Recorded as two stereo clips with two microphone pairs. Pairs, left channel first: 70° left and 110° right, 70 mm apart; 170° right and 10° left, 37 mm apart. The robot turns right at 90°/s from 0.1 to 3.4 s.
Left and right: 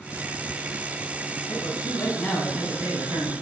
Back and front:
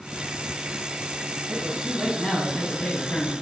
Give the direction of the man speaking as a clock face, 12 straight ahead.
10 o'clock.